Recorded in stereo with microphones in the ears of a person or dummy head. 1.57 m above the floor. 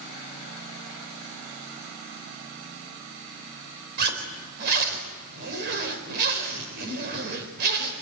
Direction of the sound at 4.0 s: 50° right (ahead or behind).